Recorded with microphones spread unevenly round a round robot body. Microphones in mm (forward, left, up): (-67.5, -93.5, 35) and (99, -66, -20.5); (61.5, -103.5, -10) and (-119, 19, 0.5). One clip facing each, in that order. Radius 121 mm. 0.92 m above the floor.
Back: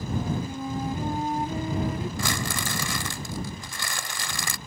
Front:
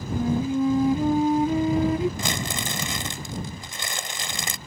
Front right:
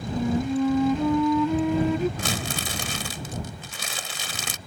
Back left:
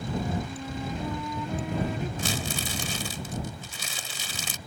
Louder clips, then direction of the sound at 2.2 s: Even, front right 1 dB; 60° right.